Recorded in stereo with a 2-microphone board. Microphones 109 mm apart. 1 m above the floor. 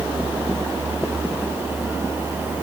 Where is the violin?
No violin in this recording.